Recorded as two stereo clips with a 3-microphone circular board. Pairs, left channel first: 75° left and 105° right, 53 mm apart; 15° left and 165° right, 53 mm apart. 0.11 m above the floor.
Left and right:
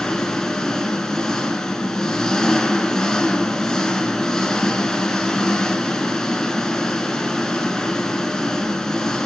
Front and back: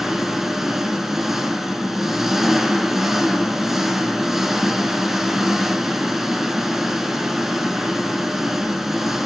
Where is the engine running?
130° left, 0.8 m.